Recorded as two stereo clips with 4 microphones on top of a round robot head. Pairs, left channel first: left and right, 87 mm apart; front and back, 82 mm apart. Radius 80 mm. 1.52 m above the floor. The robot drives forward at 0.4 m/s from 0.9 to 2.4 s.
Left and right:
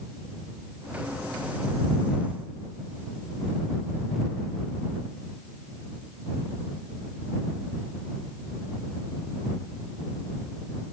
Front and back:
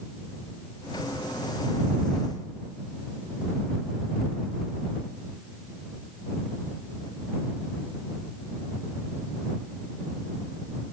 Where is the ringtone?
I don't hear a ringtone.